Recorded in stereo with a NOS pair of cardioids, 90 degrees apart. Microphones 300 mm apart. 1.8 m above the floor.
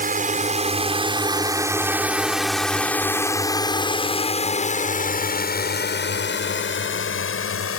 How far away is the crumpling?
No crumpling in this recording.